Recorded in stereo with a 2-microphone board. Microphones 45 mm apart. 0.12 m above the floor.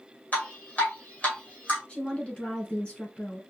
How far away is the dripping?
About 2.5 m.